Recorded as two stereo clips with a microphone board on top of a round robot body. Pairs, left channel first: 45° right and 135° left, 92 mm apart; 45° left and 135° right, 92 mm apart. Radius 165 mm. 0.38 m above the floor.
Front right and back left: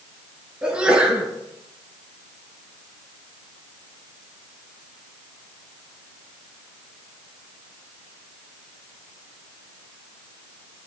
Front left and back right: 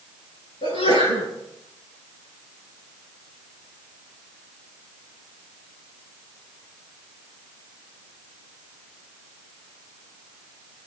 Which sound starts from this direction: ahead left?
A sneeze, at 0.6 s.